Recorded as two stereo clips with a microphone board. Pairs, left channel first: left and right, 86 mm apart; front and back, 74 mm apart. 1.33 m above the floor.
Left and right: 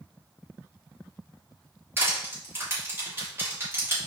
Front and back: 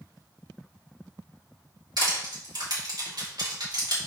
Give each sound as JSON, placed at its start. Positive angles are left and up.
{"t": 2.0, "sound": "crushing", "azimuth_deg": -155, "distance_m": 3.0}